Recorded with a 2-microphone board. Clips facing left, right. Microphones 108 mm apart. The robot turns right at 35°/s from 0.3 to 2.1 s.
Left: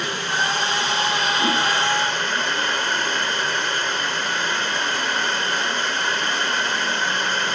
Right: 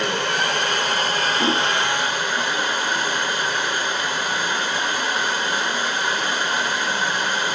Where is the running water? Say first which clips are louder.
Right 2 dB; 70° right, 4.5 m; by 7.6 s 10° right, 4.5 m.